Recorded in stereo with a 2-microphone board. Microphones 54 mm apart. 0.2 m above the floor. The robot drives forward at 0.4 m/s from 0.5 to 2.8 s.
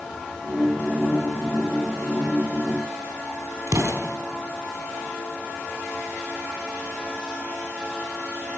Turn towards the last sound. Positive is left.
turn(degrees=-60)  # may be behind; listen again after turning